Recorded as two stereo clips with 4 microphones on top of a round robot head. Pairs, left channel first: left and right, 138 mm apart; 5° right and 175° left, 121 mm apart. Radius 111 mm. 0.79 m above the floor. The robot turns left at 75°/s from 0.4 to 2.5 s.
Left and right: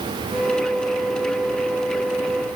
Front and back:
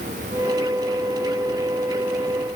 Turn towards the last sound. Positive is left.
No sound to turn to.